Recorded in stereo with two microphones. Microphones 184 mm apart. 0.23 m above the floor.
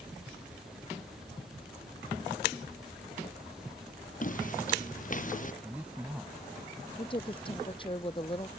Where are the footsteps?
45° left (ahead or behind).